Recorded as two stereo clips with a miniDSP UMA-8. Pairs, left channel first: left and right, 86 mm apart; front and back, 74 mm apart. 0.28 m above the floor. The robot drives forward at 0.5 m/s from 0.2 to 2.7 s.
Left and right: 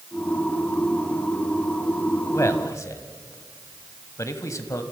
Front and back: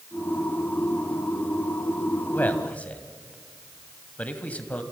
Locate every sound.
2.3 s a man speaking: 50° left, 1.6 m; by 4.8 s 60° left, 1.6 m